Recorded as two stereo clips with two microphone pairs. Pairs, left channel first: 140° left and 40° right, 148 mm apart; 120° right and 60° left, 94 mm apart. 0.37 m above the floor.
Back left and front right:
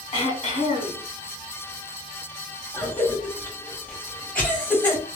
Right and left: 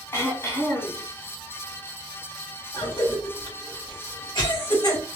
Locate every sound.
0.1 s throat clearing: 175° right, 1.6 m
2.7 s a cough: 140° right, 1.9 m